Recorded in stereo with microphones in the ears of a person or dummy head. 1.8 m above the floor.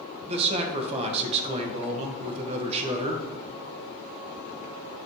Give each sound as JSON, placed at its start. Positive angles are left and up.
{"t": 0.3, "sound": "a man speaking", "side_deg": -35, "distance_m": 1.3}